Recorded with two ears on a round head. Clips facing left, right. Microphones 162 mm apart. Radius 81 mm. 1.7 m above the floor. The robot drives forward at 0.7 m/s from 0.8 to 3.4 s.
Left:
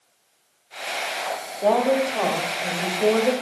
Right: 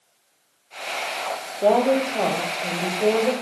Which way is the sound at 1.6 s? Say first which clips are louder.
Right 1 dB; 25° right (ahead or behind).